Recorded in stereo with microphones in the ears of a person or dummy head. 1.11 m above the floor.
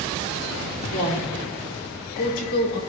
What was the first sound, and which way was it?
A woman speaking, 75° left (ahead or behind).